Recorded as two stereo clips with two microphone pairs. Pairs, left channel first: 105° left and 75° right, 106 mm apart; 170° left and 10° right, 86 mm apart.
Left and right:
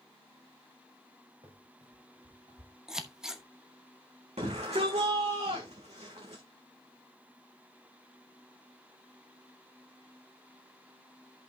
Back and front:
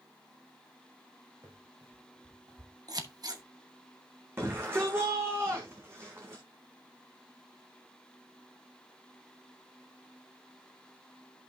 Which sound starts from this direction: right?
A shout, at 4.4 s.